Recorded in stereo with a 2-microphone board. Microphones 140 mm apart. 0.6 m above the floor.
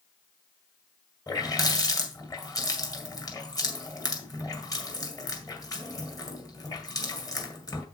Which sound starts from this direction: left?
A running tap, at 1.3 s.